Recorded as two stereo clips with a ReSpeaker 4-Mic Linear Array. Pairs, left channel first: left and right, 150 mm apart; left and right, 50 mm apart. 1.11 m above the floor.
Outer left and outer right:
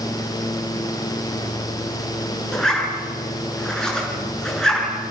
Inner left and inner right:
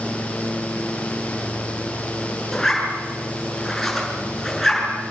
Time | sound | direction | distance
2.5 | a zipper | 5° left (ahead or behind) | 7 m